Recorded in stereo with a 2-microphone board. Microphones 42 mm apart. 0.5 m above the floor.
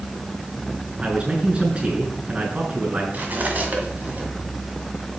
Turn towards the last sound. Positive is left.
turn(degrees=-40)  # may be behind; listen again after turning